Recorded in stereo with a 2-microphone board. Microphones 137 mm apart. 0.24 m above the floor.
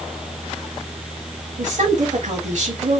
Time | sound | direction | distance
1.6 | a woman speaking | 60° right (ahead or behind) | 3 m